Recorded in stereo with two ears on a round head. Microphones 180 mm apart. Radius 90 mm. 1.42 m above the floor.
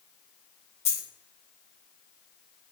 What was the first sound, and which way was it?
A dropped coin, 30° left (ahead or behind).